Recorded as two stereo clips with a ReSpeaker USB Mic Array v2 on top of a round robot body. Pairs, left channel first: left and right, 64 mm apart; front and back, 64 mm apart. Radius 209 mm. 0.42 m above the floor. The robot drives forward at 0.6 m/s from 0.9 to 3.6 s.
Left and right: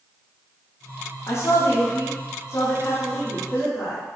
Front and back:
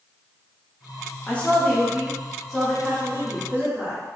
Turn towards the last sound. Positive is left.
turn(degrees=125)